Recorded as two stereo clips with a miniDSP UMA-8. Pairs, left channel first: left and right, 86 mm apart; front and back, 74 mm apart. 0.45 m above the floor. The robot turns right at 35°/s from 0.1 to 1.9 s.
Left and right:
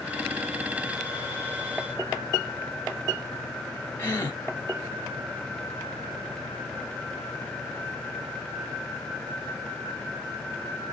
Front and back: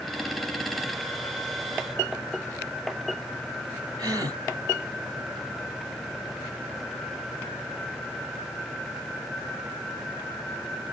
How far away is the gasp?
About 2.5 m.